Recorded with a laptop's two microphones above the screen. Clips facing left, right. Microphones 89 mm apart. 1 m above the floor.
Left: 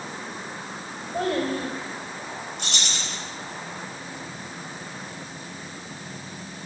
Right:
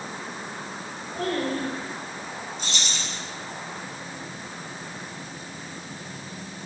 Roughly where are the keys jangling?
Left.